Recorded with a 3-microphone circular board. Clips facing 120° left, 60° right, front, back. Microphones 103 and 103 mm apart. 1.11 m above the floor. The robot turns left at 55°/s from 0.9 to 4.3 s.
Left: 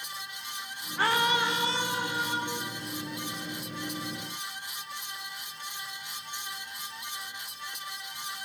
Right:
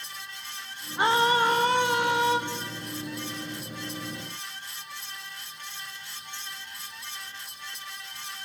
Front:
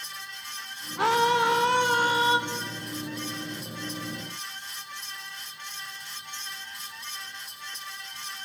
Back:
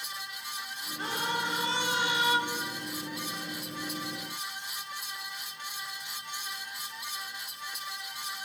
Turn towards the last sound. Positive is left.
turn(degrees=-170)